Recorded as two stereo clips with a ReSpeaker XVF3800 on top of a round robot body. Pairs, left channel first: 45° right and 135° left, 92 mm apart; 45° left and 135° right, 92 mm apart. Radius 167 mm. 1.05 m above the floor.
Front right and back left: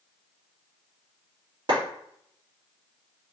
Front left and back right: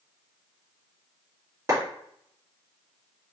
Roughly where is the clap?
Behind.